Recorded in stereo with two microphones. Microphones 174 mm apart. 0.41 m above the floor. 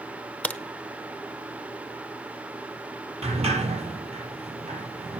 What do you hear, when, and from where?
0.4 s a crack: 10° left (ahead or behind), 0.7 m
3.2 s a sliding door: 40° right (ahead or behind), 5 m